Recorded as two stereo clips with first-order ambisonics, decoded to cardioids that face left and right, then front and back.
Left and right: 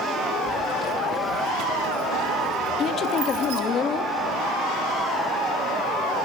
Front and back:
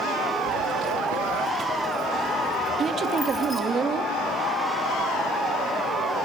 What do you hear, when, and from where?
0.5 s keys jangling: 175° left, 1.0 m; by 3.6 s 80° right, 2 m
2.8 s a woman speaking: 130° left, 0.8 m